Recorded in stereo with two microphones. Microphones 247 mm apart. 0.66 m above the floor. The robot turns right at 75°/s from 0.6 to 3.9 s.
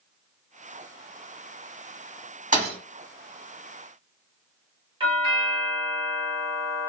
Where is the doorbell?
20° right (ahead or behind), 0.9 m.